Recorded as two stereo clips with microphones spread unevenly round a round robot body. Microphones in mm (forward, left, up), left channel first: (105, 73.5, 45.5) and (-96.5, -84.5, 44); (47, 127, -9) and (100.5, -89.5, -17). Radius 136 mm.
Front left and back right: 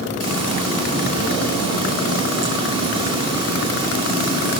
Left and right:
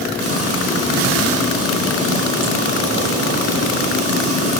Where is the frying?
75° right, 8 m.